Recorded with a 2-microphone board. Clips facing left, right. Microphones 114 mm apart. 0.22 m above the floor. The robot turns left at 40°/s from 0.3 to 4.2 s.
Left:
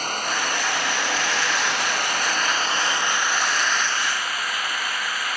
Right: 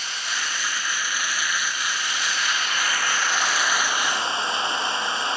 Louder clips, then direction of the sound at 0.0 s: Left 6 dB; 130° left.